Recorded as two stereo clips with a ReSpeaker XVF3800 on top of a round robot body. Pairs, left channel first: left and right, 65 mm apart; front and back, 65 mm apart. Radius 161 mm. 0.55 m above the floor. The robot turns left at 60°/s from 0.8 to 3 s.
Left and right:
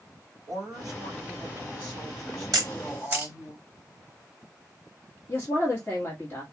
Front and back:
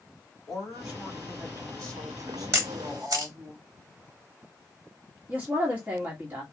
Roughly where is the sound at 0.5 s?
Right.